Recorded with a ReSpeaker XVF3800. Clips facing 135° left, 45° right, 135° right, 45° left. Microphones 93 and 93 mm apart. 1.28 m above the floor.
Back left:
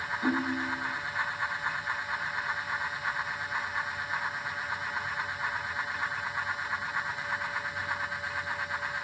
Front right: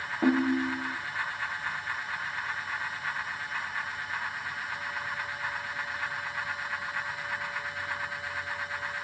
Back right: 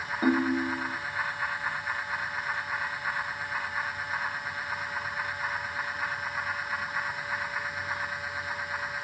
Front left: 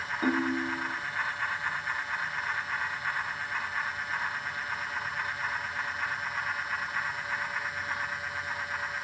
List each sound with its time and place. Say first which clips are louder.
0.2 s a ringtone: front right 6 dB, back right 3 dB; 60° right, 0.8 m